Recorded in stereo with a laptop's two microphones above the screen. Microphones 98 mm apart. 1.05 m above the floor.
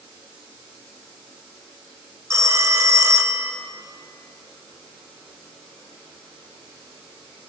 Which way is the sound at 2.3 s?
30° right (ahead or behind).